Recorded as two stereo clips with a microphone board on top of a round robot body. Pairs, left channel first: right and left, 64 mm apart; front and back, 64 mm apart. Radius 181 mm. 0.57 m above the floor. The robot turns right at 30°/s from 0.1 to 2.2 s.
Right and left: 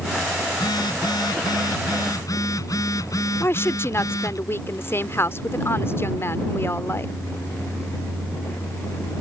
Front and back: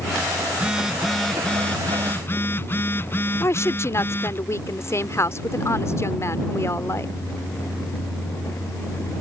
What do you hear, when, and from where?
0.5 s a phone buzzing: 105° right; by 4.4 s 55° right
3.4 s a woman speaking: 40° right